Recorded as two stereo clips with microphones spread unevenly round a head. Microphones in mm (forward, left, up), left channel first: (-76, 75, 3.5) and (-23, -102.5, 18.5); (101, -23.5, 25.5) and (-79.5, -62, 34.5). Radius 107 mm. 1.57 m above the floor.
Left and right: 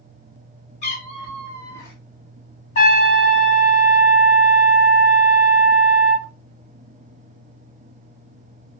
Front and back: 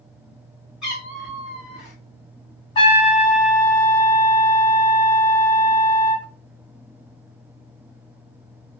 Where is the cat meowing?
115° left, 1.4 m; by 2.0 s 140° left, 1.3 m.